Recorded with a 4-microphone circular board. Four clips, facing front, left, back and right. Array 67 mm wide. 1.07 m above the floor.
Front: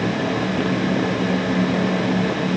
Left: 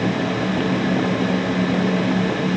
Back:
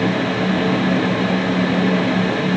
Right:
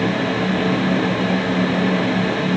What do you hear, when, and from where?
Only background noise.